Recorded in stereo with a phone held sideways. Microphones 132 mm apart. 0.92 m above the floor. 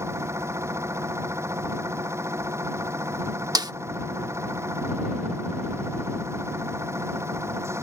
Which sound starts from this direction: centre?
A machine running, at 0.0 s.